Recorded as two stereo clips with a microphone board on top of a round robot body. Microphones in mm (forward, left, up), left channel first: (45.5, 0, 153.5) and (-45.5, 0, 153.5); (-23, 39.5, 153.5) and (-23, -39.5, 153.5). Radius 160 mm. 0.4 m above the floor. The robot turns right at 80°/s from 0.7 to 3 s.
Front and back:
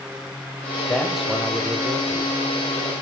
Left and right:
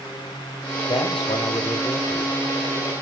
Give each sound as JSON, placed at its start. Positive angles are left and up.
{"t": 0.9, "sound": "a man speaking", "azimuth_deg": 70, "distance_m": 2.5}